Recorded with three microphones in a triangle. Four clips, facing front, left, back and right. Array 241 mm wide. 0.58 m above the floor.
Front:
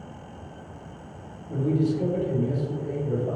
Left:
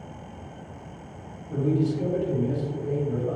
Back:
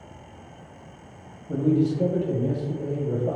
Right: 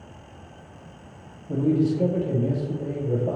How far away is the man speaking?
About 3 m.